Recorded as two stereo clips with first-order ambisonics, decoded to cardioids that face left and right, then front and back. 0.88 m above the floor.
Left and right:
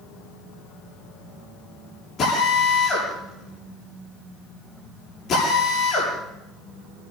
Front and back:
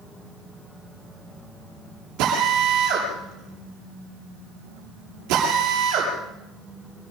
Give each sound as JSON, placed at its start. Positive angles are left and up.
{"t": 2.2, "sound": "a drill", "azimuth_deg": 150, "distance_m": 9.5}